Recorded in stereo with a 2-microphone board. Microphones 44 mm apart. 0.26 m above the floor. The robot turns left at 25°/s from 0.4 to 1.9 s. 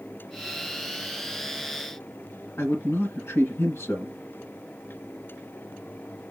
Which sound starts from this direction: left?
A man speaking, at 2.6 s.